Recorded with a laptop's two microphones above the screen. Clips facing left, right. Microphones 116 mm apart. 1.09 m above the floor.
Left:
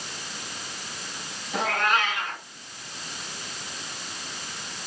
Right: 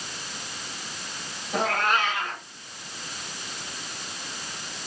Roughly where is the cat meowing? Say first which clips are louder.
Even; right.